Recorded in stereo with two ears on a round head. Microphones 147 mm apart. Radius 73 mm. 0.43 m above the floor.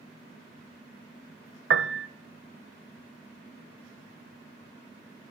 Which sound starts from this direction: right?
A piano, at 1.7 s.